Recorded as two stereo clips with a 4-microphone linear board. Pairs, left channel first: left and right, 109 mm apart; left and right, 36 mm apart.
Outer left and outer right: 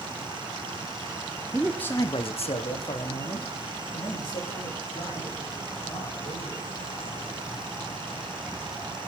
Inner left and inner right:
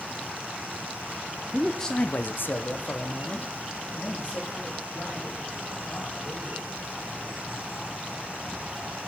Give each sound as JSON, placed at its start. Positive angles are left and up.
{"t": 1.5, "sound": "a man speaking", "side_deg": 0, "distance_m": 0.9}